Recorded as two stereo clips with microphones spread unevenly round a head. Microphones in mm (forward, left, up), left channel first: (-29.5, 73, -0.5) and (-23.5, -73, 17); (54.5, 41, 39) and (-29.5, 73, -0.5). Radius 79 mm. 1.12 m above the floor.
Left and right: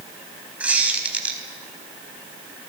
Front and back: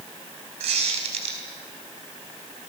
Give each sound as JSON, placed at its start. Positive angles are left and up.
{"t": 0.6, "sound": "a squeak", "azimuth_deg": -170, "distance_m": 4.0}